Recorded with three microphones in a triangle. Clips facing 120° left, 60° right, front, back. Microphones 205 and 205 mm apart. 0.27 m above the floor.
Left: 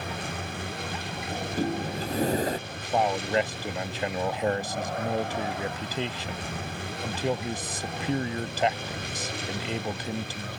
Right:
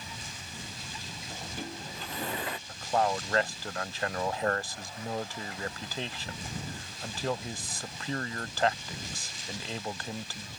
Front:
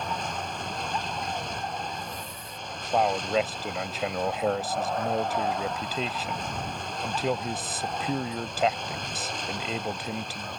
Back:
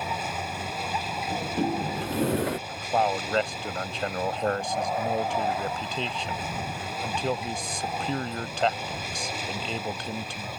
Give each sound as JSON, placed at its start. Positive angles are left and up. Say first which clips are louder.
{"t": 0.0, "sound": "a vehicle", "louder": "left 12 dB, back 1 dB", "azimuth_deg": 95}
{"t": 1.3, "sound": "a sliding door", "louder": "left 12 dB, back 7 dB", "azimuth_deg": 170}
{"t": 2.7, "sound": "a man speaking", "louder": "right 3 dB, even", "azimuth_deg": 80}